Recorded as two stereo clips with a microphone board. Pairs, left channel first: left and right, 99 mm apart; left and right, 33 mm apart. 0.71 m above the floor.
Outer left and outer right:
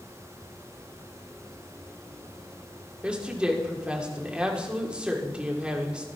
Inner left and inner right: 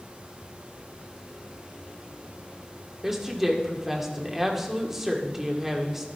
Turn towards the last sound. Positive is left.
turn(degrees=-10)  # may be behind; listen again after turning